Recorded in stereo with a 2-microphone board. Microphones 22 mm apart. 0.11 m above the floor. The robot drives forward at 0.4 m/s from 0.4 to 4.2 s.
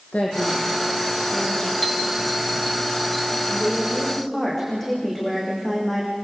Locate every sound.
0.1 s a woman speaking: 75° left (ahead or behind), 5.5 m
1.8 s a chime: 5° right (ahead or behind), 0.9 m
3.5 s a woman speaking: 10° left (ahead or behind), 8.5 m